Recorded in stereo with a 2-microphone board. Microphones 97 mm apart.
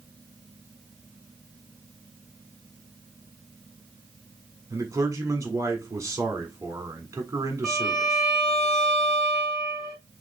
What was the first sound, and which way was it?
A man speaking, 30° right (ahead or behind).